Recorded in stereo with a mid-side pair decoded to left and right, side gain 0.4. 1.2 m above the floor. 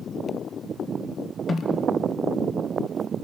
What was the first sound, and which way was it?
A snare drum, 55° left.